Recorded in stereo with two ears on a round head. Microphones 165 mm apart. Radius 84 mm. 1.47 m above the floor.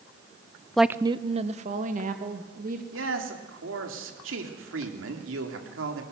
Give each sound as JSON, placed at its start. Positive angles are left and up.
{"t": 0.8, "sound": "a woman speaking", "side_deg": 5, "distance_m": 0.6}
{"t": 2.9, "sound": "a man speaking", "side_deg": -85, "distance_m": 3.5}